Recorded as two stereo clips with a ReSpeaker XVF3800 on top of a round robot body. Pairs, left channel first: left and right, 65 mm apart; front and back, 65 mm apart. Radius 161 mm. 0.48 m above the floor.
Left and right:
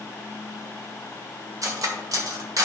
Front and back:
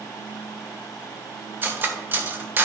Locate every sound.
1.6 s cutlery clinking: 120° right, 1.5 m